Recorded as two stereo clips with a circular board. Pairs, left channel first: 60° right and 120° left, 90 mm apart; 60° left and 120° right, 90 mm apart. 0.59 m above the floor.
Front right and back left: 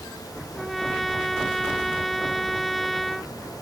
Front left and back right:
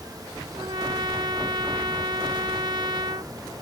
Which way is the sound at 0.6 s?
150° right.